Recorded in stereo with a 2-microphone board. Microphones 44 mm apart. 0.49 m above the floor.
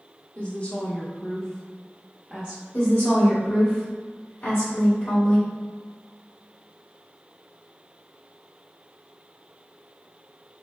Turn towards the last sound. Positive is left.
turn(degrees=55)  # may be behind; listen again after turning